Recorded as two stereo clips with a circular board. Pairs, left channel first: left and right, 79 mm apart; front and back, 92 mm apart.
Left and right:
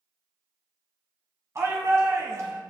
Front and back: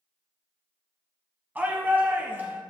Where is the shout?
115° right, 1.3 m.